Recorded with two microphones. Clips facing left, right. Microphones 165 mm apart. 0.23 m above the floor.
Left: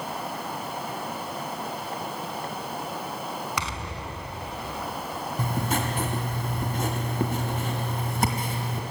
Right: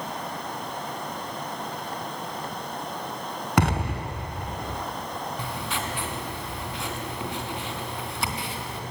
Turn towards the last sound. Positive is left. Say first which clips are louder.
# left 4 dB
turn(degrees=45)  # may be behind; listen again after turning